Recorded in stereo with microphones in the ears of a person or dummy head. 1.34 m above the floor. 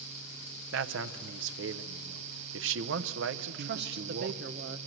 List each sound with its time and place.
0.7 s a man speaking: 75° right (ahead or behind), 0.7 m
3.5 s a woman speaking: 55° right (ahead or behind), 1.0 m